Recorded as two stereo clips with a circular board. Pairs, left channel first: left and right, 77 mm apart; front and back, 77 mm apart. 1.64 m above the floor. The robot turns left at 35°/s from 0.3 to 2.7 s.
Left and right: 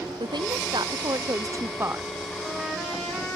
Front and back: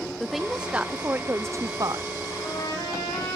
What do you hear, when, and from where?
0.2 s a woman speaking: 90° right, 0.5 m; by 2.1 s 150° right, 0.5 m
2.3 s a trumpet: 15° left, 9 m; by 3.4 s straight ahead, 9 m